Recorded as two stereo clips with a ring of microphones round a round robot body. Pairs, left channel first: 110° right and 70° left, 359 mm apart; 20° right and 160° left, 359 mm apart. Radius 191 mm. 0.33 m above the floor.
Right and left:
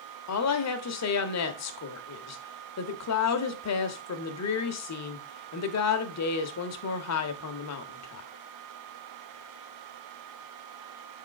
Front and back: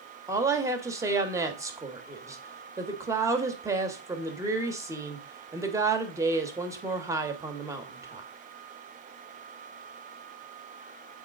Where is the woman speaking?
125° right, 1.2 m.